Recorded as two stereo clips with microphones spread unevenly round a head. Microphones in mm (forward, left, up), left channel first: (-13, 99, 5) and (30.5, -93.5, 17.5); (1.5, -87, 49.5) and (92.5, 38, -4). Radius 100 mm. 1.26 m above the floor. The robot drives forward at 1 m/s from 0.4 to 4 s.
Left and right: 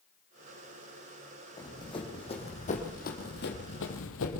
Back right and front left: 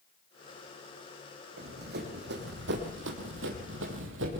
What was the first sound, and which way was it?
Running footsteps, 30° left.